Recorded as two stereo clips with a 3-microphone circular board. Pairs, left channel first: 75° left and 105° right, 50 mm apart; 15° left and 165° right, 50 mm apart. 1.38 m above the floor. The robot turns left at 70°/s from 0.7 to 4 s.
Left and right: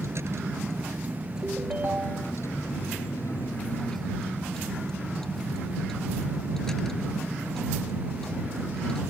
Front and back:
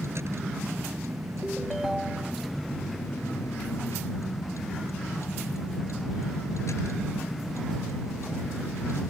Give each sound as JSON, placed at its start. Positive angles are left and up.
{"t": 0.0, "sound": "a vehicle", "azimuth_deg": -135}
{"t": 1.4, "sound": "a ringtone", "azimuth_deg": -50}